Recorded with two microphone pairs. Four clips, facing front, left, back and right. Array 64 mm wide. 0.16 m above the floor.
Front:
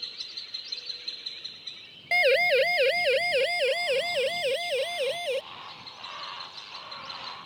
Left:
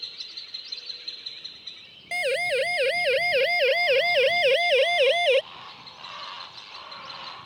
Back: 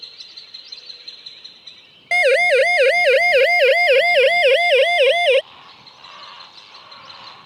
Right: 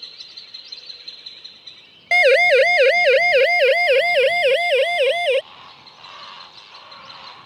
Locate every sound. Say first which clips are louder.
2.1 s a siren: right 12 dB, back 8 dB; 125° right; by 5.4 s 175° right